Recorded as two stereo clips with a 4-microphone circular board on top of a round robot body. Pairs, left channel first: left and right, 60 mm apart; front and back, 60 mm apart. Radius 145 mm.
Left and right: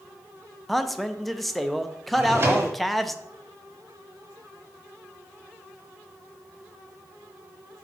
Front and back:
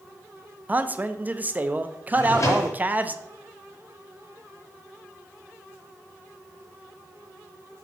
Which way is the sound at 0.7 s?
175° left.